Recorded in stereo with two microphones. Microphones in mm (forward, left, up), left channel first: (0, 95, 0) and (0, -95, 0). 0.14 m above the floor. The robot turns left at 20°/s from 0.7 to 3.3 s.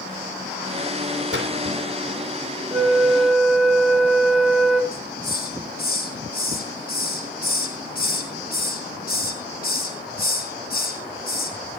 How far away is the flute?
About 1.9 m.